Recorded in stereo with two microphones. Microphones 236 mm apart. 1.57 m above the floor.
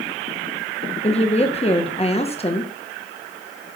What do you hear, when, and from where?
1.0 s a woman speaking: 25° left (ahead or behind), 1.5 m